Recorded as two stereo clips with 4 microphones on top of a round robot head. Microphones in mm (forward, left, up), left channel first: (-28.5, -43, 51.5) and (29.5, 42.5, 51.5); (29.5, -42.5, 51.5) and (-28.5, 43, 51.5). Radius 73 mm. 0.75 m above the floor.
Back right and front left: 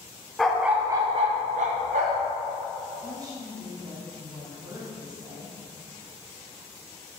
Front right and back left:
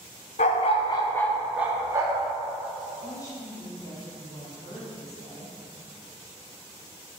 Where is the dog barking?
35° right, 0.8 m; by 2.3 s 70° left, 1.1 m.